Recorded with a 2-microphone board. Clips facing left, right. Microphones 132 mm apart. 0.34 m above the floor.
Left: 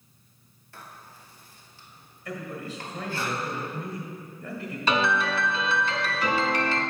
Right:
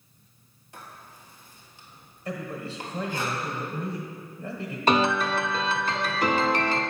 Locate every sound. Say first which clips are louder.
0.7 s writing: right 1 dB; 20° right (ahead or behind), 1.3 m
2.2 s a man speaking: right 2 dB; 30° right (ahead or behind), 1.2 m
4.9 s a piano: right 3 dB; 45° right (ahead or behind), 0.7 m